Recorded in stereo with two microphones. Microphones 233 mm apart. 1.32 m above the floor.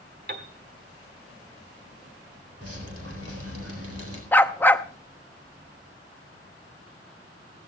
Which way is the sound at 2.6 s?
80° right.